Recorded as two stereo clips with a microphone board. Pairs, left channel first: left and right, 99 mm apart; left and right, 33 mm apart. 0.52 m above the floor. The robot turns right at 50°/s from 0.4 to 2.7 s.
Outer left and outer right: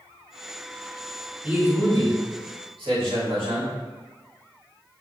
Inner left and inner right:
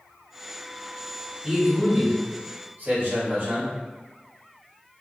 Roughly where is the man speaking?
Behind.